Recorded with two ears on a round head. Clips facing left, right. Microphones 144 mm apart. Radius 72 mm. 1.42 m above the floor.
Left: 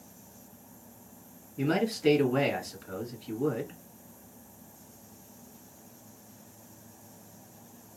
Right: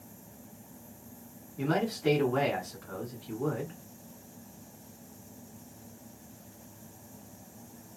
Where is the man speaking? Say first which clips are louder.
Left 2 dB; 30° left (ahead or behind), 1.5 m.